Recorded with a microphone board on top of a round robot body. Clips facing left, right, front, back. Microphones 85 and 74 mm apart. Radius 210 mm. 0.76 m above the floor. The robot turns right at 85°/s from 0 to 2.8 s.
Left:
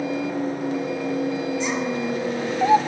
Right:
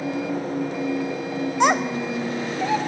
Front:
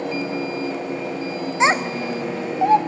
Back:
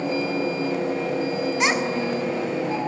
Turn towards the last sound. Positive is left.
turn(degrees=35)